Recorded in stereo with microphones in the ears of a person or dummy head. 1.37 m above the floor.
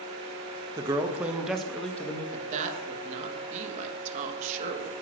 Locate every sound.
0.8 s a man speaking: 20° right (ahead or behind), 1.1 m; by 2.2 s 10° left (ahead or behind), 1.5 m
2.3 s a woman speaking: 35° right (ahead or behind), 2.0 m